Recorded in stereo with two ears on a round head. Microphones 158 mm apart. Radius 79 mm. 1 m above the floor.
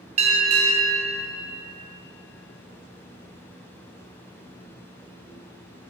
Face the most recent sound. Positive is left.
turn(degrees=-40)  # may be behind; listen again after turning